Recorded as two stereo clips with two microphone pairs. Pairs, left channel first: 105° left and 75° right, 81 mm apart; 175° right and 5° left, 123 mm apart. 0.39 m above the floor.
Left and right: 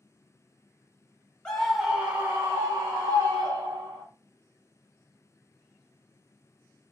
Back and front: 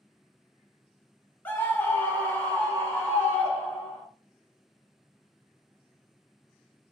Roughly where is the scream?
Behind.